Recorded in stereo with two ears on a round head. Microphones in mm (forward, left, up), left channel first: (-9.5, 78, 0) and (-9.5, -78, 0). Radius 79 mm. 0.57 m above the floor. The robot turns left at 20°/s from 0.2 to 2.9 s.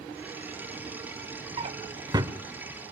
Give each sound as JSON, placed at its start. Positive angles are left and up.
{"t": 1.6, "sound": "a drawer", "side_deg": -35, "distance_m": 0.7}